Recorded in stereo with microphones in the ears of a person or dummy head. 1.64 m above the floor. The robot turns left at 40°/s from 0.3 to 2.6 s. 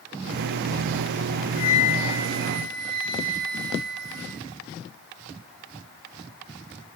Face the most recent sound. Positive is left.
turn(degrees=70)